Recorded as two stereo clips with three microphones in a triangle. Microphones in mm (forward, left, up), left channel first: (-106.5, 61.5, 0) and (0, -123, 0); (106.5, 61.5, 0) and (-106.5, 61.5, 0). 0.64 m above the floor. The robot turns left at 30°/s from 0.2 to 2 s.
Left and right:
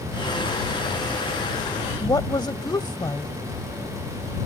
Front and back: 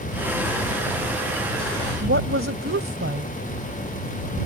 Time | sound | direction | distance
2.0 | a woman speaking | 170° right | ?